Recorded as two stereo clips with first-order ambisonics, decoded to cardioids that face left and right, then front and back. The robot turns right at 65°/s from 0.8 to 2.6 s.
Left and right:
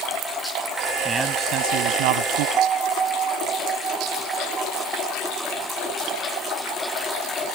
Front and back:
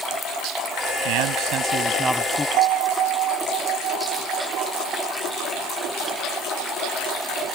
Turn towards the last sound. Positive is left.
turn(degrees=-150)